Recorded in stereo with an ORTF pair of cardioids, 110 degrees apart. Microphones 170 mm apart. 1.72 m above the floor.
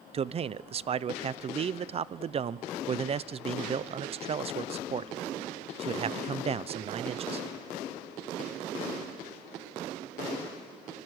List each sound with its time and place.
0.1 s a man speaking: 35° right, 0.8 m